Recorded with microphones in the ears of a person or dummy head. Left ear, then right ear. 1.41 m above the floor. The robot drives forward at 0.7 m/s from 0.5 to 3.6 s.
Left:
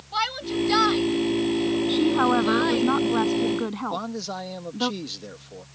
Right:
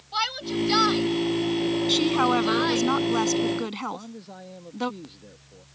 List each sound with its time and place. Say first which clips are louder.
0.1 s a shout: left 1 dB; 20° right (ahead or behind); by 2.9 s 25° right (ahead or behind)
1.9 s a woman speaking: even; 75° right (ahead or behind)
3.9 s a man speaking: left 9 dB; 60° left (ahead or behind)